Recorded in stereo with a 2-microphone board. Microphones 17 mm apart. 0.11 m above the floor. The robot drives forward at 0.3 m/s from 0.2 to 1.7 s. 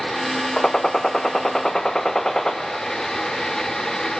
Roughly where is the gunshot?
Left.